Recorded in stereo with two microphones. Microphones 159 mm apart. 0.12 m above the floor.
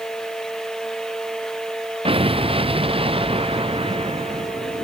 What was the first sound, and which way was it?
An explosion, 35° right (ahead or behind).